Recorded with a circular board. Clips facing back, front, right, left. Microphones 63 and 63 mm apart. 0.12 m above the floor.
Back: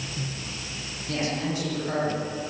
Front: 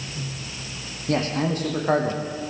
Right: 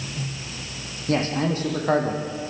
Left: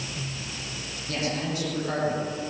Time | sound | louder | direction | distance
1.1 | a man speaking | front 5 dB, right 7 dB | 40° right | 6.5 m